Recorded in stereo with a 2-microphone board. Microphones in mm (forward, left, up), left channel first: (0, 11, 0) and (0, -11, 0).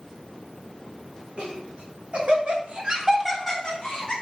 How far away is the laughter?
About 2 m.